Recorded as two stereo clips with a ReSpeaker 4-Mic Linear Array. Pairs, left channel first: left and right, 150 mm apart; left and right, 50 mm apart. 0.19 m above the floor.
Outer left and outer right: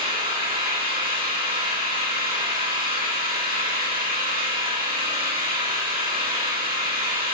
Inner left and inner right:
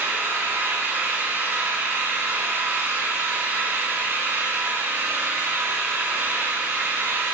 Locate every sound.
0.0 s an engine running: 70° right (ahead or behind), 9.5 m